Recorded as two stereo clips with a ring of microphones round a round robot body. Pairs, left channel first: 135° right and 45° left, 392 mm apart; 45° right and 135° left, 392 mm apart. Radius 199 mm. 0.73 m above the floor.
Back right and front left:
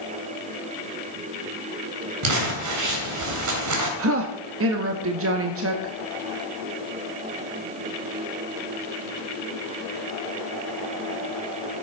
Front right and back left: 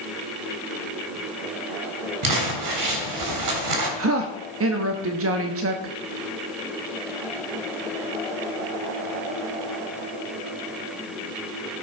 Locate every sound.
2.2 s crumpling: 95° left, 3 m
4.0 s a woman speaking: 90° left, 1.2 m